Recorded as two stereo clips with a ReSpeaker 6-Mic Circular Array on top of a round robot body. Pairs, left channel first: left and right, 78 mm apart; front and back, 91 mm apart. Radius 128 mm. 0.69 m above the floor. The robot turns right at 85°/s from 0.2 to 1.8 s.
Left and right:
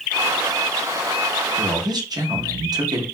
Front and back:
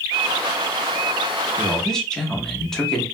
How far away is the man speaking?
About 1.1 m.